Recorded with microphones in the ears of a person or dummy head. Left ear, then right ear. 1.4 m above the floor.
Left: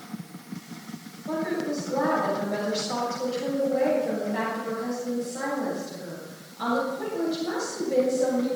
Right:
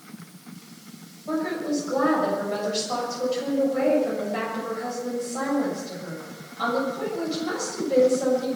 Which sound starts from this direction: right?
A woman speaking, at 1.3 s.